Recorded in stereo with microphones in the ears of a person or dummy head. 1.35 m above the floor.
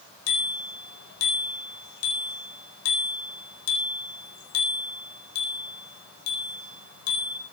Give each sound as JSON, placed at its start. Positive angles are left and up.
{"t": 0.3, "sound": "a bicycle bell", "side_deg": 85, "distance_m": 4.5}